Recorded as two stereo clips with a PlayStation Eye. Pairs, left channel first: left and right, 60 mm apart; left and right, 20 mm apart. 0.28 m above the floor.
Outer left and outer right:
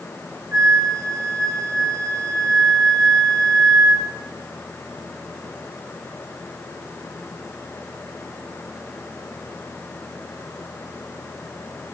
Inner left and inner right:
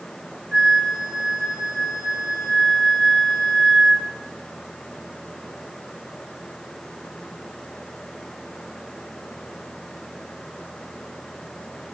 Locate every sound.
0.5 s a flute: 70° right (ahead or behind), 1.6 m